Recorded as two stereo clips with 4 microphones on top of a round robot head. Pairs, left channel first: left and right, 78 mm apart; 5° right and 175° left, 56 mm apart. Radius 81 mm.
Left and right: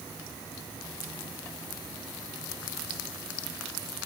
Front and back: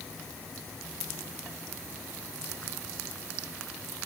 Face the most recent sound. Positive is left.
No sound to turn to.